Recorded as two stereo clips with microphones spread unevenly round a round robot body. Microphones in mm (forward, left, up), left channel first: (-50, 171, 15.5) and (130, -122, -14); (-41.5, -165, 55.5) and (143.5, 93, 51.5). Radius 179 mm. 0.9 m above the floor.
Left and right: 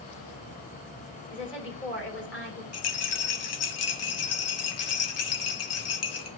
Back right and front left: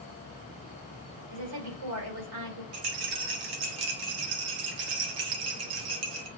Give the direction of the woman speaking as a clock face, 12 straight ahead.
10 o'clock.